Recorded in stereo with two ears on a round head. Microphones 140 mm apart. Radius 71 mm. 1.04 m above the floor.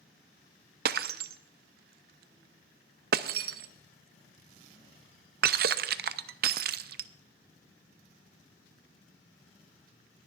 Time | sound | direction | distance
0.8 | breaking glass | 65° right (ahead or behind) | 0.5 m